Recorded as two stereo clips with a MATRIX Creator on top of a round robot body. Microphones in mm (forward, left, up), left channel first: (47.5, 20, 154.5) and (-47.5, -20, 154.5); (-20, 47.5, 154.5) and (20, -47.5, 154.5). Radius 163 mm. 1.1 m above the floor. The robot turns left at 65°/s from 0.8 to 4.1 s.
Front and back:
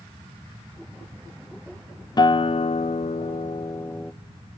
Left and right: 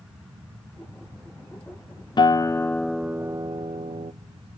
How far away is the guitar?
About 0.6 m.